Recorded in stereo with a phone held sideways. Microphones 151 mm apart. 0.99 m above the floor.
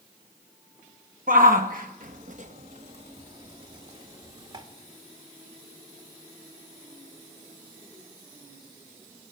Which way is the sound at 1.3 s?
65° right (ahead or behind).